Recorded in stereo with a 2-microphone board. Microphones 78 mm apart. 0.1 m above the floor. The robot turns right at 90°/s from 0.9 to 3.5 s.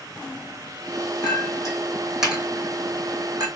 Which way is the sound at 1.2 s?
75° left (ahead or behind).